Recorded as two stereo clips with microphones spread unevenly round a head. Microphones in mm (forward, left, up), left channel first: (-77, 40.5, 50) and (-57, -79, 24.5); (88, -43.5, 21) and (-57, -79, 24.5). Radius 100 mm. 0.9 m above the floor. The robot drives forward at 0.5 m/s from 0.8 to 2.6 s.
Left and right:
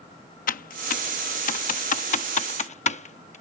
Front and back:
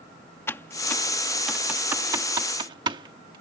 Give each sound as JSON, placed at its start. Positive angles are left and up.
{"t": 0.5, "sound": "typing on a keyboard", "azimuth_deg": 90}